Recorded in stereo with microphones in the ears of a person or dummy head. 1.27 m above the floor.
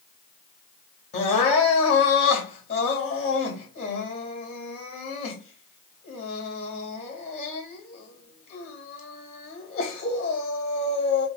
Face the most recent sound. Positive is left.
turn(degrees=40)  # may be behind; listen again after turning